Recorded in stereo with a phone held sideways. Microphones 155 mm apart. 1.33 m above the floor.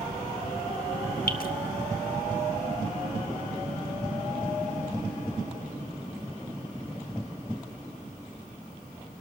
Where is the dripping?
70° left (ahead or behind), 1.4 m.